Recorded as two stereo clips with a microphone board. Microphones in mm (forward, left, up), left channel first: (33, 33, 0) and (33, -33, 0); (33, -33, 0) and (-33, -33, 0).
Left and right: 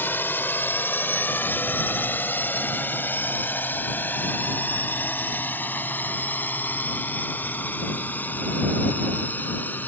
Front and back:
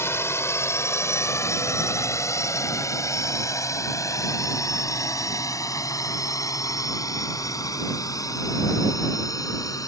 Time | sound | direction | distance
0.0 | a drone | 40° left | ?